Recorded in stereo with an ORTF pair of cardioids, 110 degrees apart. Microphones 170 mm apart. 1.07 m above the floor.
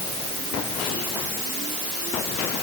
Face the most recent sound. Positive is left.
No sound to turn to.